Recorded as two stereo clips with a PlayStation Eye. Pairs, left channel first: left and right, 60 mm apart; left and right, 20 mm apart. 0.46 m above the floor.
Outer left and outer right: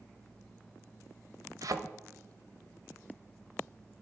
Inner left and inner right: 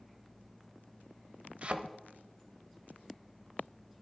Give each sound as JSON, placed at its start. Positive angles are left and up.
{"t": 1.6, "sound": "a thud", "side_deg": -70, "distance_m": 0.6}